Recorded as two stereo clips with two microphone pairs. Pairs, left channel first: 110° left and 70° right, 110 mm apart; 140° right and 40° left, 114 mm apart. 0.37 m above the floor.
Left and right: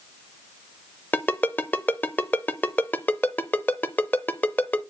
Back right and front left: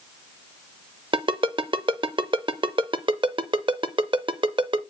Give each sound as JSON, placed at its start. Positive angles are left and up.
{"t": 1.1, "sound": "a ringtone", "azimuth_deg": 40, "distance_m": 0.6}